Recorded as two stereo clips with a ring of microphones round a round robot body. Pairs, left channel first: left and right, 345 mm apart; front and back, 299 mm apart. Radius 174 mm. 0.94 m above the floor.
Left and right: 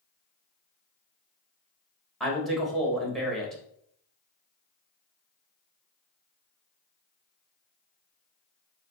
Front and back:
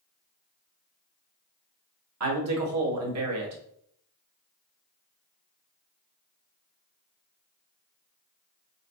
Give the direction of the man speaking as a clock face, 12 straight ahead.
6 o'clock.